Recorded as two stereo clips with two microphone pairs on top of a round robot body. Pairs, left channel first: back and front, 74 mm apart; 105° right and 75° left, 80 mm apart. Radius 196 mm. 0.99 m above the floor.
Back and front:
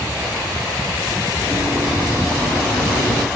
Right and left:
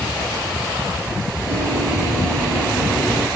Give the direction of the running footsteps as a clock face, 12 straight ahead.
3 o'clock.